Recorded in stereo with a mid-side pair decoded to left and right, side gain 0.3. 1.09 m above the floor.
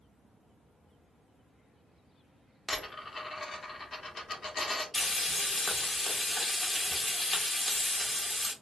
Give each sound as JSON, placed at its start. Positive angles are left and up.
{"t": 2.7, "sound": "a dropped coin", "azimuth_deg": 45, "distance_m": 1.2}
{"t": 4.9, "sound": "frying", "azimuth_deg": 50, "distance_m": 1.2}